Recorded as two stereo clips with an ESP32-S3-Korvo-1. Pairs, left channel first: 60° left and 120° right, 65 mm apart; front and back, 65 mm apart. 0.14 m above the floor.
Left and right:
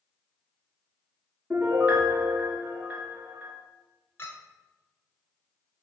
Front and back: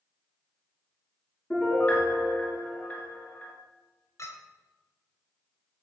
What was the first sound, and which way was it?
A piano, 60° right.